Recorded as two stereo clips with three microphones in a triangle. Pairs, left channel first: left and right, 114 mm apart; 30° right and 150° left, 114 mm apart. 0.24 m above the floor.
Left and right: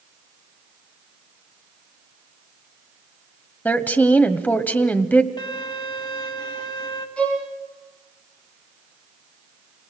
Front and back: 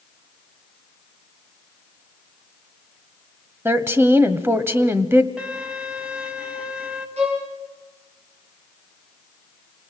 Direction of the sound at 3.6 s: 135° left.